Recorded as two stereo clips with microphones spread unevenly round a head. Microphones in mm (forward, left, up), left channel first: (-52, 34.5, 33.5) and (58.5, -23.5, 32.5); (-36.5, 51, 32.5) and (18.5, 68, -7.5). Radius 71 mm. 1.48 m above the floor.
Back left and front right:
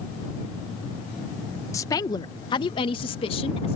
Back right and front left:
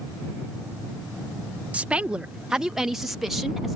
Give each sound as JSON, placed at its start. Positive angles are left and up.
{"t": 1.7, "sound": "a woman speaking", "azimuth_deg": 85}